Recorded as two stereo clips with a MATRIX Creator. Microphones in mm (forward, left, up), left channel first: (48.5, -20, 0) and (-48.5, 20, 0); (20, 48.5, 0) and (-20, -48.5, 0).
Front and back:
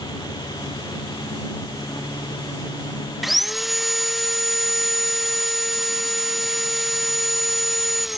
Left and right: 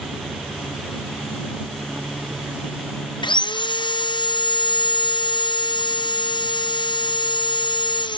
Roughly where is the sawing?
Left.